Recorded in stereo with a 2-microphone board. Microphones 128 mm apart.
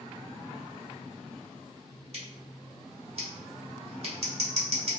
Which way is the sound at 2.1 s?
55° right (ahead or behind).